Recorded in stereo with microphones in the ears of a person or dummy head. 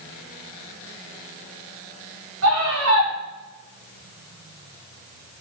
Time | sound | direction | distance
2.4 | a scream | 85° right | 2.5 m